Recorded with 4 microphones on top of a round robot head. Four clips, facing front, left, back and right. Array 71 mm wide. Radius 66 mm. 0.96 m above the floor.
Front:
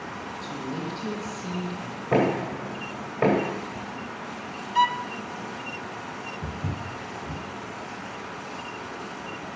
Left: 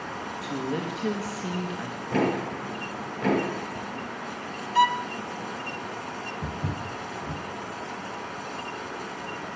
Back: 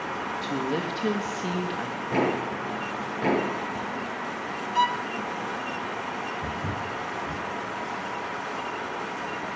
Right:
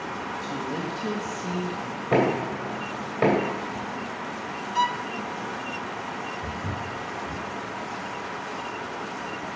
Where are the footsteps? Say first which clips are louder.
Right 1 dB, back 3 dB; 85° left, 5.5 m.